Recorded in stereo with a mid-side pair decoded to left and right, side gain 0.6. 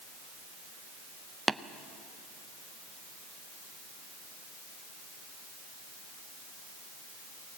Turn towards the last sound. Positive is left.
turn(degrees=-10)